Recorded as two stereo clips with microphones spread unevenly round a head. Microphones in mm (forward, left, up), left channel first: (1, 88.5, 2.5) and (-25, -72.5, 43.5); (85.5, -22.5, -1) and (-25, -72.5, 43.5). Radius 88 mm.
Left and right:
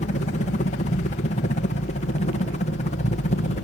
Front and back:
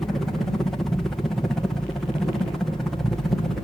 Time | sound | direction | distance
0.0 | a helicopter | 100° left | ?